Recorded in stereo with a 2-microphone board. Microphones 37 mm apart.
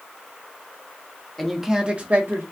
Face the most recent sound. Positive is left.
turn(degrees=-60)  # may be behind; listen again after turning